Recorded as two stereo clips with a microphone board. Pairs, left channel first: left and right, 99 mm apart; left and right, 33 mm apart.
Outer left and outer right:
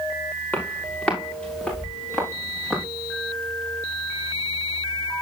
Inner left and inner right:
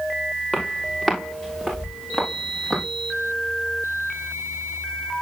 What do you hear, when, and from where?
0.5 s footsteps: 15° left (ahead or behind), 6.5 m; by 2.9 s centre (ahead or behind), 8 m